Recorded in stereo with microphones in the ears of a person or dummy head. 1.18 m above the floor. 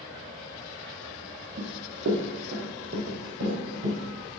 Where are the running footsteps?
60° right (ahead or behind), 2 m; by 4.0 s 70° right (ahead or behind), 3.5 m.